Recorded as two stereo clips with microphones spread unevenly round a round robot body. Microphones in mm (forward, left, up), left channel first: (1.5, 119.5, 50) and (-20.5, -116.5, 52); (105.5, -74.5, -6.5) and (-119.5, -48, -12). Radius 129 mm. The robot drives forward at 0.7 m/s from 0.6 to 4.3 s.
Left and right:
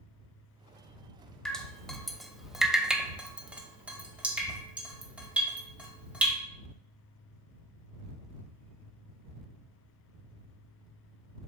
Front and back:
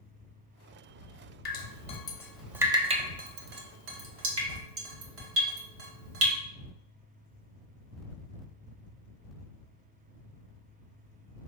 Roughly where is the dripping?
Ahead.